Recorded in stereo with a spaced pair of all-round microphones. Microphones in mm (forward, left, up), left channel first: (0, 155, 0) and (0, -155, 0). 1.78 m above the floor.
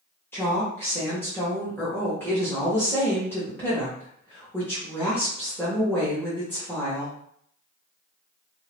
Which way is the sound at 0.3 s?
5° left (ahead or behind).